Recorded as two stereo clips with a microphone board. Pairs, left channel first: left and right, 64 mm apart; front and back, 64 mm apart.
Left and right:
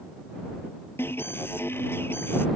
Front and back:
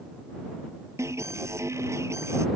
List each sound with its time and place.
1.0 s an alarm: 140° left